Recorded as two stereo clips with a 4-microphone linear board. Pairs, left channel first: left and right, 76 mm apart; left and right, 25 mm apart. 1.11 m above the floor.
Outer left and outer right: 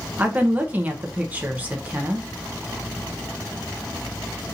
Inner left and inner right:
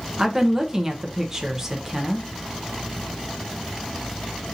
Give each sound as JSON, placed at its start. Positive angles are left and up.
{"t": 0.2, "sound": "a woman speaking", "side_deg": -20, "distance_m": 0.8}